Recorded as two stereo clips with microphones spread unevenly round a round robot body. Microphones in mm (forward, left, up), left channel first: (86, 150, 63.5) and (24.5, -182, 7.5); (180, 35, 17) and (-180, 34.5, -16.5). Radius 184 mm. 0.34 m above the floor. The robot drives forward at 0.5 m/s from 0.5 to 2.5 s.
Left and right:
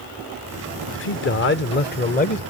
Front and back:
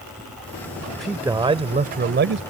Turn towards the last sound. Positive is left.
turn(degrees=150)